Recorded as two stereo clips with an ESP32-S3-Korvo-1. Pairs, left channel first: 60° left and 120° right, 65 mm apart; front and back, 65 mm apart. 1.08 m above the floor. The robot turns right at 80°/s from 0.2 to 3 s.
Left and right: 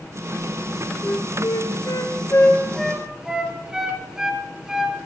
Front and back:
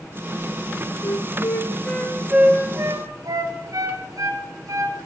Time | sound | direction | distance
1.0 | a flute | straight ahead | 3.5 m